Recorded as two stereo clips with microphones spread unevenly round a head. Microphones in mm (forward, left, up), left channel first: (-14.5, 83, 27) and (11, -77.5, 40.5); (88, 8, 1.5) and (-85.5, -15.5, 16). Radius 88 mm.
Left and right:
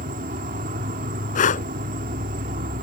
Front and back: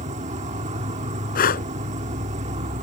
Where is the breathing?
55° left.